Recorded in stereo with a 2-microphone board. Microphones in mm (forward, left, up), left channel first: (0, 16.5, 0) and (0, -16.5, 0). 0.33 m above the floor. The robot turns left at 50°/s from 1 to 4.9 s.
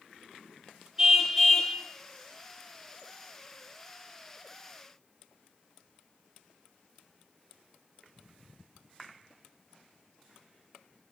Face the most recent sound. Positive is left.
turn(degrees=5)